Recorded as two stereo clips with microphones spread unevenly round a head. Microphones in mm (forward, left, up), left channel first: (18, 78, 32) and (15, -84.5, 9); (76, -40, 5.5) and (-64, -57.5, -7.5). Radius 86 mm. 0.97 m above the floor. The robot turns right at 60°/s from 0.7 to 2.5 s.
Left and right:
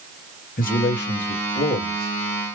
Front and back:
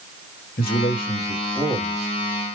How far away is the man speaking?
About 1.2 m.